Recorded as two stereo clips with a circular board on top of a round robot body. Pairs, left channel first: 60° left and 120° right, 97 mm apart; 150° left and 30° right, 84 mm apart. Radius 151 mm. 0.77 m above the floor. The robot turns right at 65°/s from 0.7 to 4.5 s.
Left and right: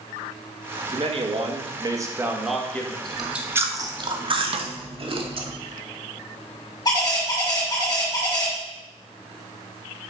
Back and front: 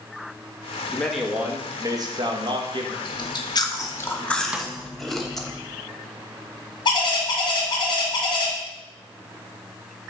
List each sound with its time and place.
0.9 s a man speaking: 135° right, 1.6 m; by 3.0 s 5° right, 1.6 m
3.0 s chewing: 145° left, 1.3 m; by 5.5 s 120° right, 1.3 m
4.5 s a snare drum: 105° right, 0.8 m
6.8 s a bird: 115° left, 2.0 m